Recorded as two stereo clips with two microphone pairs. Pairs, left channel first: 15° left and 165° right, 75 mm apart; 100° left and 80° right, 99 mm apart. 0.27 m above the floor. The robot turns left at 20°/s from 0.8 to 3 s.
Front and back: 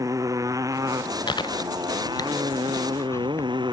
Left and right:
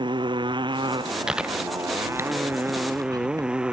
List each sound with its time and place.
0.0 s a motorcycle: 120° right; by 3.7 s 160° right
1.3 s chewing: straight ahead; by 3.5 s 30° right